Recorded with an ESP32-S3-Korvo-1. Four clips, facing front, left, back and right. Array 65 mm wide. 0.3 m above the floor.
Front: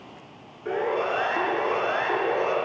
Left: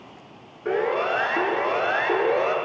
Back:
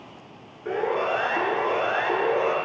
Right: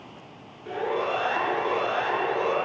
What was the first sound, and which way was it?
A siren, 90° left.